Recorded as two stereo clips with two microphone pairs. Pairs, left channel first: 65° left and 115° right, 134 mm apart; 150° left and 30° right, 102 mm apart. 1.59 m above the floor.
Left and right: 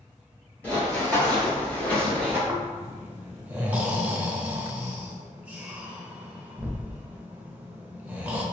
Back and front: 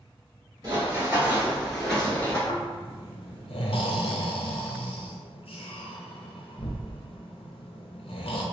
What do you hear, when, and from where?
0.6 s running footsteps: 5° right, 1.9 m; by 2.4 s 135° left, 1.6 m
2.5 s snoring: 170° left, 0.5 m